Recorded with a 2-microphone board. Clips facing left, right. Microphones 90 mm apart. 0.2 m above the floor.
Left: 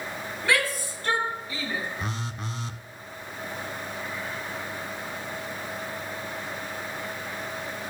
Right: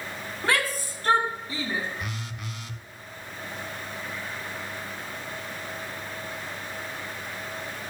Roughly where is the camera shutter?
No camera shutter in this recording.